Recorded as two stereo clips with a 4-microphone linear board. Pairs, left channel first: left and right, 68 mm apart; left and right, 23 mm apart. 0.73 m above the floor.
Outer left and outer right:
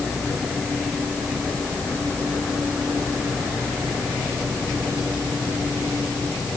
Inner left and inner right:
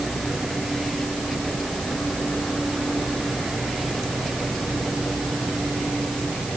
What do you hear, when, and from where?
Only background noise.